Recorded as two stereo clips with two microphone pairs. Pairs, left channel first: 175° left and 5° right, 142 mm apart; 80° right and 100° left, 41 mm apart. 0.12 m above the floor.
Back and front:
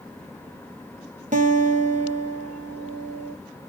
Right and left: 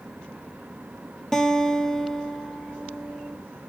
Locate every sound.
1.3 s a guitar: straight ahead, 0.7 m